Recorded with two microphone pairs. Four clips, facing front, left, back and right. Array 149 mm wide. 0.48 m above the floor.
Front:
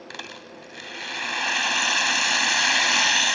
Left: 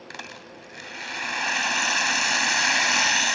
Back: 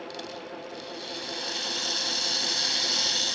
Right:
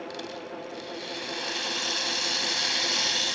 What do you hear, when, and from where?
0.1 s a rattle: 35° left